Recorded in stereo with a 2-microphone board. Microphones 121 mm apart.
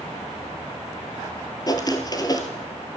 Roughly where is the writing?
Left.